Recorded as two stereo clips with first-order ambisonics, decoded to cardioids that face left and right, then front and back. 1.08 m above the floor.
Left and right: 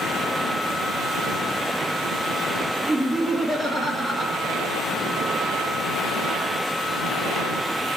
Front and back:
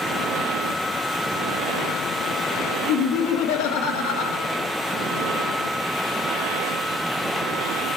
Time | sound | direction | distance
2.9 | laughter | straight ahead | 1.2 m